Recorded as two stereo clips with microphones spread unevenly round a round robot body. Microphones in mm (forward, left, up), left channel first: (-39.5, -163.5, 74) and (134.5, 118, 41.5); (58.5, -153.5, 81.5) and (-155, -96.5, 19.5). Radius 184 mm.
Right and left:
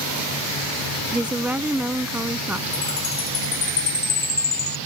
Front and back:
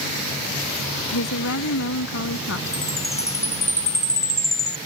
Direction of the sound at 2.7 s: 80° right.